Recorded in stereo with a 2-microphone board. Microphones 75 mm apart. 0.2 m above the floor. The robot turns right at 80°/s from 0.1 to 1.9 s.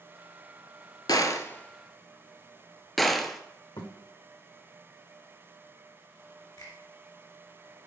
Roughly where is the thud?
Left.